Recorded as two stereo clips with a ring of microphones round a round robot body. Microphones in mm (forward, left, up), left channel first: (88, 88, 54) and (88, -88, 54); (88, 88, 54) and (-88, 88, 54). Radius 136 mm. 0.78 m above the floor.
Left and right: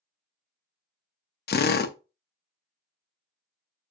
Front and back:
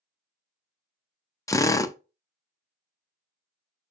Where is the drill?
75° left, 0.6 m.